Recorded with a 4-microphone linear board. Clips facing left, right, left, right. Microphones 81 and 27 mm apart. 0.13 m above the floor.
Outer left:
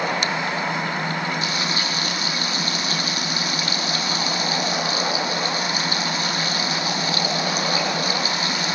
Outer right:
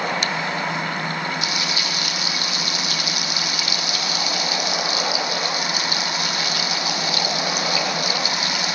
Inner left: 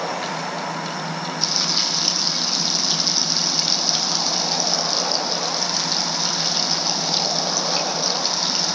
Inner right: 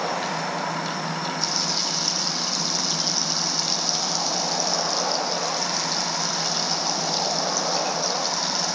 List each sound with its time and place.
1.4 s frying: 35° left (ahead or behind), 3.5 m